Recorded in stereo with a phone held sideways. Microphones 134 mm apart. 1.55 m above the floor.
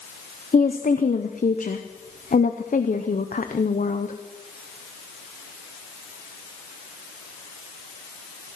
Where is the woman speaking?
80° left, 0.8 m.